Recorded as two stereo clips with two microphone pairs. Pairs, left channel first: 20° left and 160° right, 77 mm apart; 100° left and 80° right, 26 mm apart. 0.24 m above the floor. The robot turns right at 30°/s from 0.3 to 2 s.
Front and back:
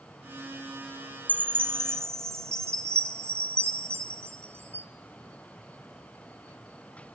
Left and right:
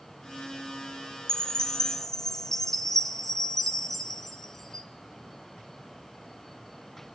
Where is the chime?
140° left, 1.1 m; by 4.9 s 160° left, 1.1 m.